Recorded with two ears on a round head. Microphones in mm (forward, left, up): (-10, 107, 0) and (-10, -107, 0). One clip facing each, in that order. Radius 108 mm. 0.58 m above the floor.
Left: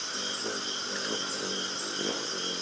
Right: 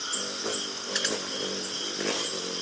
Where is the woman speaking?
No woman speaking in this recording.